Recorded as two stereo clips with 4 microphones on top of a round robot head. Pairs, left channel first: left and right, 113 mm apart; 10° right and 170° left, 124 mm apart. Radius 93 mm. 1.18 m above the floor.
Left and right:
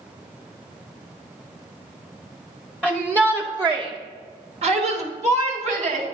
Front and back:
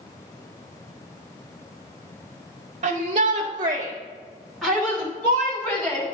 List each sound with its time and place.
2.8 s a shout: 170° right, 0.8 m; by 6.0 s 75° right, 1.5 m